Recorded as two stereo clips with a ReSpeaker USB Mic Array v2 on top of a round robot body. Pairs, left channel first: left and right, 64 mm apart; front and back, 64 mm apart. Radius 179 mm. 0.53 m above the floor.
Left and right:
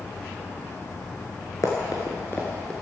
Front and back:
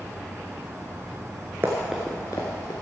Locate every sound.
1.6 s running footsteps: 125° left, 0.5 m; by 2.7 s 10° left, 0.6 m